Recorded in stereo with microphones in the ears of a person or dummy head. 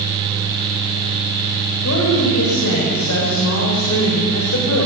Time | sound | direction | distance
1.8 | a woman speaking | 85° left | 8 m